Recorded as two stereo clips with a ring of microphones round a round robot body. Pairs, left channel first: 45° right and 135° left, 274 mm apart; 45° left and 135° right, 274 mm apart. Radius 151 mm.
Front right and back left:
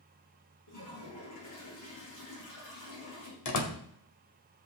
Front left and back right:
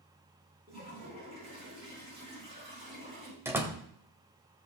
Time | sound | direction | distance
0.7 | a toilet flushing | 65° right | 8 m
3.5 | a door slam | 55° right | 1.8 m